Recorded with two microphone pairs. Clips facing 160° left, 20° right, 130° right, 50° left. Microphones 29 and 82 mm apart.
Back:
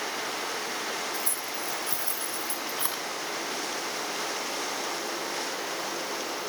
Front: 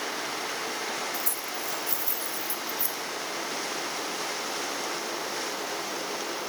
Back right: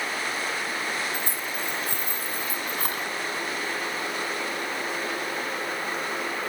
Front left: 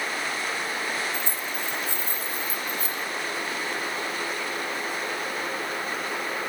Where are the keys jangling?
160° right, 2.5 m.